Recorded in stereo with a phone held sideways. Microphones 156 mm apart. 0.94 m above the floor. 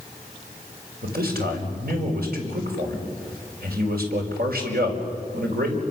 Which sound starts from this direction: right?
A man speaking, at 1.0 s.